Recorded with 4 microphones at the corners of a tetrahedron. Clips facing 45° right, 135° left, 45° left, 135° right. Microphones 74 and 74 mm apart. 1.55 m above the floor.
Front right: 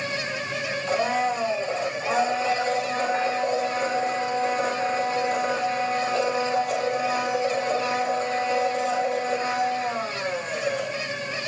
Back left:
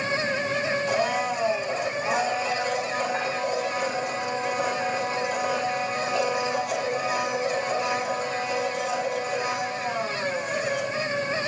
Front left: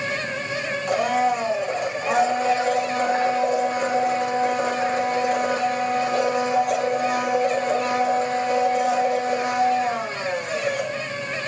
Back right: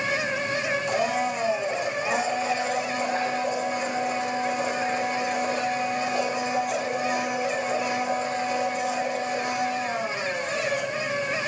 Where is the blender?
10° left, 3.5 m.